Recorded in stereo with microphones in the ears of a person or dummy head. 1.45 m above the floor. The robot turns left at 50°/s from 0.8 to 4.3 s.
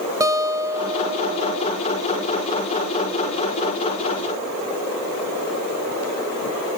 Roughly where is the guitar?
Ahead.